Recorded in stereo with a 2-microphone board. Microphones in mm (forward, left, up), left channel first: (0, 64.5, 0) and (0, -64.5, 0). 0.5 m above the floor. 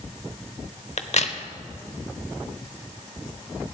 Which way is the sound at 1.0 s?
60° left (ahead or behind).